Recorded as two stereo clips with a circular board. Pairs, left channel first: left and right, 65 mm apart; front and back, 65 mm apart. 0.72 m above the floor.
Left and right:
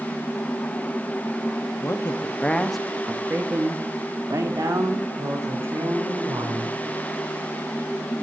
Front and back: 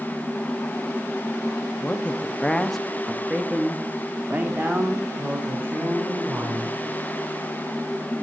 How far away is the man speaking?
About 0.8 m.